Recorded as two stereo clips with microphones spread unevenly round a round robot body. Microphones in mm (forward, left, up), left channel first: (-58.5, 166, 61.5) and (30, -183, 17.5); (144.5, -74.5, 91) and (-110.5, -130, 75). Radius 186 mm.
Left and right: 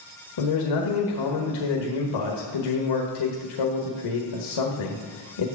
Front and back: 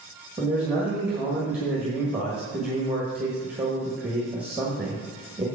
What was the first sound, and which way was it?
A man speaking, 110° left.